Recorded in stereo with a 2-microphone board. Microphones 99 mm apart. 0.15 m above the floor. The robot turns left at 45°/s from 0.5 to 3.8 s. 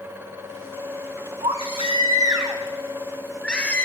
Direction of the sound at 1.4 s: 95° right.